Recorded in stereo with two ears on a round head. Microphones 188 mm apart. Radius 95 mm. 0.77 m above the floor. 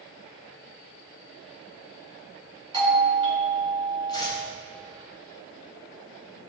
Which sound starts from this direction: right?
A doorbell, at 2.7 s.